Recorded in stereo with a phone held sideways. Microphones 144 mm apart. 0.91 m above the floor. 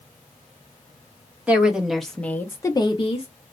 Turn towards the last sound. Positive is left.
turn(degrees=45)  # may be behind; listen again after turning